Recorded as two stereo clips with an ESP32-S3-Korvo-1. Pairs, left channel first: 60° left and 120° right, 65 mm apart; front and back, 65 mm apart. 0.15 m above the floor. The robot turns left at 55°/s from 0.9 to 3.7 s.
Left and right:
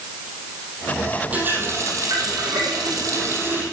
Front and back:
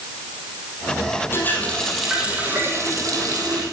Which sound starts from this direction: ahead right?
A running tap, at 1.3 s.